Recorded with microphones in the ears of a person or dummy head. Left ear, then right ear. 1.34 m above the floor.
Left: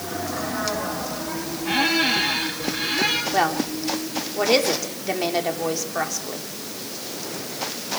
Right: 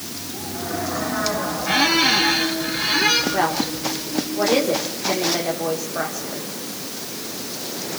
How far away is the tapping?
I don't hear tapping.